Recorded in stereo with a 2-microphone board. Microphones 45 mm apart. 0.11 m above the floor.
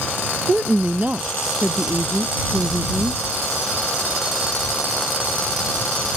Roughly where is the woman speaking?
Right.